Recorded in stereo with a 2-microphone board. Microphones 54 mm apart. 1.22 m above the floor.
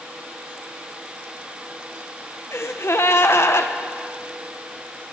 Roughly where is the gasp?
Left.